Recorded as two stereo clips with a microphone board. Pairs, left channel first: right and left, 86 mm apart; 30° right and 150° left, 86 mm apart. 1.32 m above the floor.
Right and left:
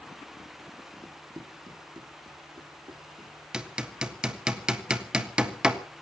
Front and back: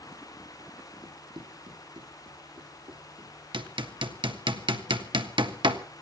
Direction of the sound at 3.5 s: 170° left.